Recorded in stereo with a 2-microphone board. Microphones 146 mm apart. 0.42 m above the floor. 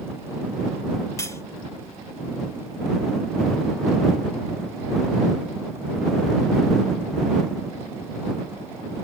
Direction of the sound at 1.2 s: 20° left (ahead or behind).